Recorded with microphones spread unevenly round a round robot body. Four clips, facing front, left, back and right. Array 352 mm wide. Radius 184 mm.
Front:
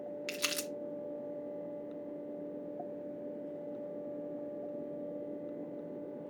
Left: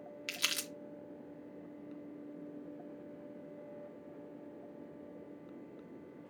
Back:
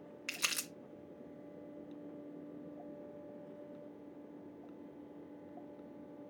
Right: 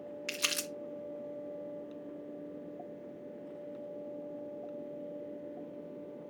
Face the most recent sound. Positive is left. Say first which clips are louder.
# right 3 dB, front 2 dB
turn(degrees=-160)